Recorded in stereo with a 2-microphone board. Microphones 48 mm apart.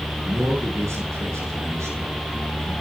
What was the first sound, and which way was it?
A man speaking, 75° right (ahead or behind).